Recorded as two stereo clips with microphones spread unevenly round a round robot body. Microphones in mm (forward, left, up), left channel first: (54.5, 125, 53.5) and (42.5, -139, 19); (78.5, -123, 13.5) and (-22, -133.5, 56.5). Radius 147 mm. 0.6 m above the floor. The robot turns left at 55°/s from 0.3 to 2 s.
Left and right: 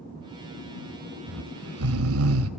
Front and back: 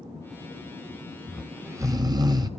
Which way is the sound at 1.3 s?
75° right.